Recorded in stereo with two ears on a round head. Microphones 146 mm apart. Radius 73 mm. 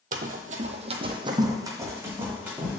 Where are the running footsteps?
55° right (ahead or behind), 0.7 m; by 2.8 s 10° right (ahead or behind), 1.9 m.